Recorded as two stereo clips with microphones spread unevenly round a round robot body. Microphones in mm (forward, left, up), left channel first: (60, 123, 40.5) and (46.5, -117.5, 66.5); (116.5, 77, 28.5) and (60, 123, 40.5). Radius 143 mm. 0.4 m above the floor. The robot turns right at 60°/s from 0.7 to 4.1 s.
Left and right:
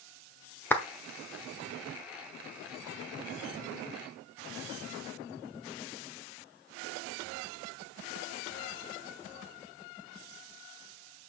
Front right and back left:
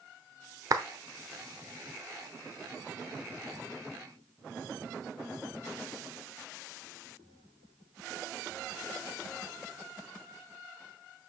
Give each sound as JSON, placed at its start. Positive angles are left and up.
{"t": 0.7, "sound": "a clap", "azimuth_deg": 155, "distance_m": 1.0}